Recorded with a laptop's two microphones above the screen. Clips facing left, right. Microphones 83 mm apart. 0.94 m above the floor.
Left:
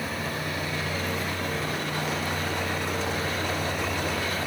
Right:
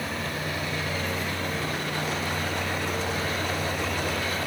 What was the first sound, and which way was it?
A vehicle, 5° left (ahead or behind).